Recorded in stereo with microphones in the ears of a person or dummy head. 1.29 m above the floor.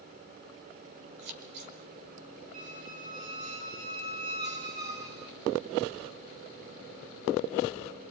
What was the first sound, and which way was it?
Scissors, 60° right (ahead or behind).